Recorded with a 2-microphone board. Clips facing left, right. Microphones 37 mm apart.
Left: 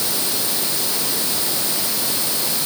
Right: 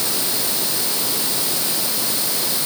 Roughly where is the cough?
No cough in this recording.